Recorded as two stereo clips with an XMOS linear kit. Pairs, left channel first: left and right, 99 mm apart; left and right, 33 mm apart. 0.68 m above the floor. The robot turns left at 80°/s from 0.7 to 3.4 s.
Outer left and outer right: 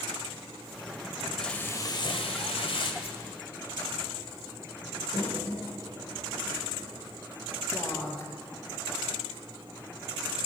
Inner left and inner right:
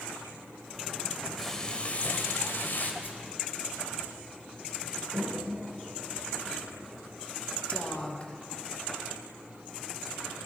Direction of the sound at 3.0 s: 75° left (ahead or behind).